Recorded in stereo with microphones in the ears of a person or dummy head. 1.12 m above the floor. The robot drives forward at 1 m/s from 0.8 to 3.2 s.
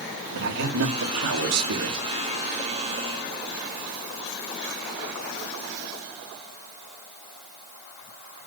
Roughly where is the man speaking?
Right.